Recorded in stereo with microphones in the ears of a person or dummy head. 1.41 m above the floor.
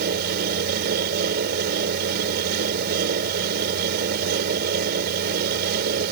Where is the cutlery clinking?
I don't hear cutlery clinking.